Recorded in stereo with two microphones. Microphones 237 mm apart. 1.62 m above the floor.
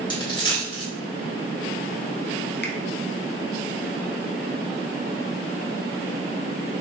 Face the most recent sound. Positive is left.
turn(degrees=45)  # may be behind; listen again after turning